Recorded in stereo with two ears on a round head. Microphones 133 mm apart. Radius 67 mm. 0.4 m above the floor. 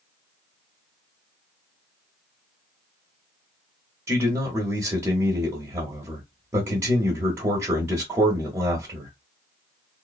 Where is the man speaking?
15° right (ahead or behind), 0.9 m.